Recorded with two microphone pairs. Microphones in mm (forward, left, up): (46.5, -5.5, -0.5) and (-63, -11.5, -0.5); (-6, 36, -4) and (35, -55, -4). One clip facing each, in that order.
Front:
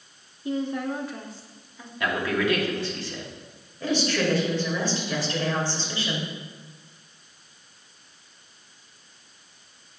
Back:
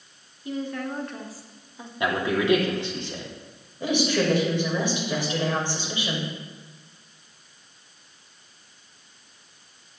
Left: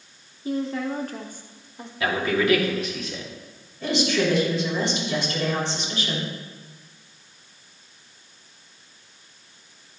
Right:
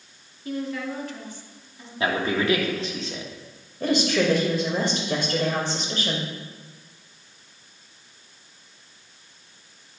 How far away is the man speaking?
About 1.7 m.